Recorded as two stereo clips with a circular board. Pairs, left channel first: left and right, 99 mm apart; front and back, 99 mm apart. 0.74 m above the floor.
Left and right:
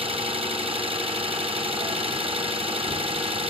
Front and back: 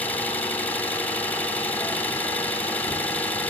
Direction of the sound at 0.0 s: 75° right.